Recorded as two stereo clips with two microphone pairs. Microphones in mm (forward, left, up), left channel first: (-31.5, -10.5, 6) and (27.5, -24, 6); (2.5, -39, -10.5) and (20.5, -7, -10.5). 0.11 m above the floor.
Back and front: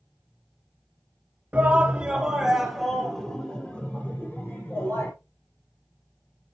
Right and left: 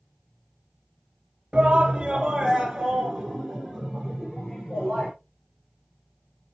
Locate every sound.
1.5 s a shout: 20° left, 1.9 m; by 5.1 s 175° right, 2.5 m